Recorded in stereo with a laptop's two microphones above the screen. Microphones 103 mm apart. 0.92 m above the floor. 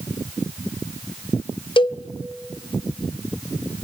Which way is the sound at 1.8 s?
50° left (ahead or behind).